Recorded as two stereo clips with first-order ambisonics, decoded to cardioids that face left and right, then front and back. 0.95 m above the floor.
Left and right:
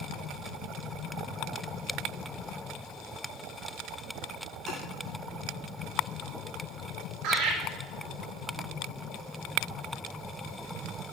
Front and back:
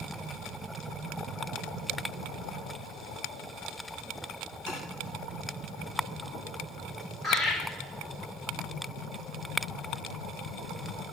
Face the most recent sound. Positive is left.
turn(degrees=-105)